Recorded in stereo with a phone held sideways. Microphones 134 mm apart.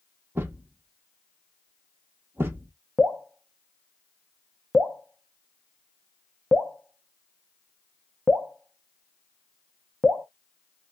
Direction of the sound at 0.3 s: 15° right (ahead or behind).